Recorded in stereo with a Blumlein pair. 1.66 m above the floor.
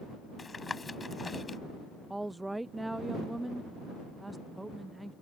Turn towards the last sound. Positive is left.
turn(degrees=-5)